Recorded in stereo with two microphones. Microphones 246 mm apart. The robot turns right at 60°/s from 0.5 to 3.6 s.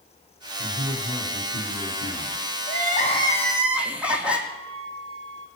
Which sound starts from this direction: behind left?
Crying, at 2.7 s.